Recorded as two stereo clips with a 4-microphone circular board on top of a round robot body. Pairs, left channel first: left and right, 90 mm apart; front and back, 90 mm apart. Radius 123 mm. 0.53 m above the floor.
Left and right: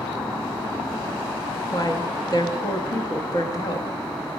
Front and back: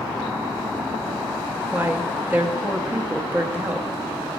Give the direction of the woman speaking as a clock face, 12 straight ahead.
8 o'clock.